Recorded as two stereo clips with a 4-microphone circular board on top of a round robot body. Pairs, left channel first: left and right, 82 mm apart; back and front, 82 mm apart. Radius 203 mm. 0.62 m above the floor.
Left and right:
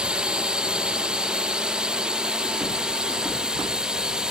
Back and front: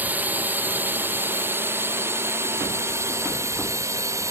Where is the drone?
30° right; by 4.3 s 15° right.